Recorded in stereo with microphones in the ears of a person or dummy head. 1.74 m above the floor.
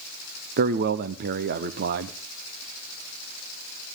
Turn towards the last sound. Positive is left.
turn(degrees=-45)  # may be behind; listen again after turning